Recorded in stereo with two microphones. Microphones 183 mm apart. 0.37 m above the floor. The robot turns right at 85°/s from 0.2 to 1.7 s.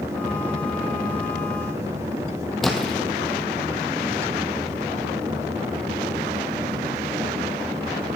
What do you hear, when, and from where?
2.6 s a splash: centre (ahead or behind), 2.5 m